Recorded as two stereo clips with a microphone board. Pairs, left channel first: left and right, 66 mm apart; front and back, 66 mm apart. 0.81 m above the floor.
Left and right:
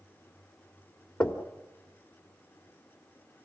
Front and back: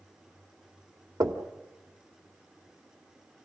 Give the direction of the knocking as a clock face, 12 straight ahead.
7 o'clock.